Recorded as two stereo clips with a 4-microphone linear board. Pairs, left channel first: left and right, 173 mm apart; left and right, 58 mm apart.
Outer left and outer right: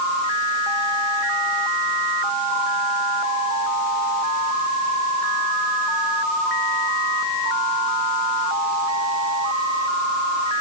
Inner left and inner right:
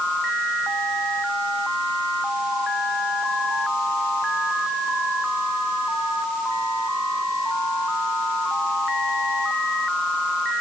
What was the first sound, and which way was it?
Only background noise.